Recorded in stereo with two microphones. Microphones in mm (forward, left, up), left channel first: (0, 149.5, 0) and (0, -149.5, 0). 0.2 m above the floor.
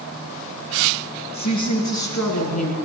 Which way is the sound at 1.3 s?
70° left (ahead or behind).